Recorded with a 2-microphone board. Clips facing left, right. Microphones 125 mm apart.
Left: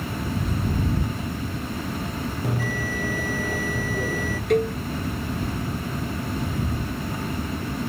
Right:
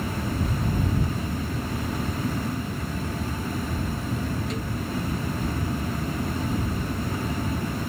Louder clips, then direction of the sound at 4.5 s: Left 10 dB; 60° left (ahead or behind).